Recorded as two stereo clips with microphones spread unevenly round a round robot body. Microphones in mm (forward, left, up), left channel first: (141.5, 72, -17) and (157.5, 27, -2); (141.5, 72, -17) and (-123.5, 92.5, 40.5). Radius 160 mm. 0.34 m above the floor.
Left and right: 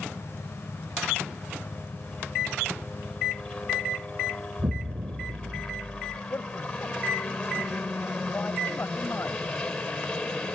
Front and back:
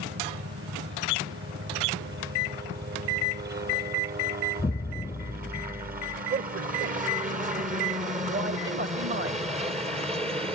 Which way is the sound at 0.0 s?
165° left.